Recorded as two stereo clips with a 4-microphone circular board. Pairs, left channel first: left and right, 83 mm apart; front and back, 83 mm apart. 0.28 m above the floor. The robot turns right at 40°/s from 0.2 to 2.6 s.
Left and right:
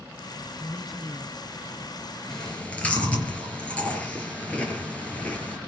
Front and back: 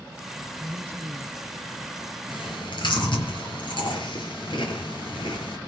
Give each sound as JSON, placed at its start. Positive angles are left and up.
{"t": 0.6, "sound": "a man speaking", "azimuth_deg": 170, "distance_m": 1.1}
{"t": 2.3, "sound": "chewing", "azimuth_deg": 5, "distance_m": 6.5}